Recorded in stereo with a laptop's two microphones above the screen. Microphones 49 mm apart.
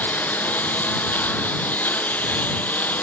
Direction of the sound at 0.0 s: 35° left (ahead or behind).